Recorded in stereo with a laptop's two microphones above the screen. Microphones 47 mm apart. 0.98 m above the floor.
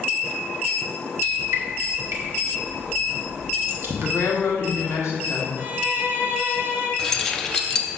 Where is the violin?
40° right (ahead or behind), 1.1 m.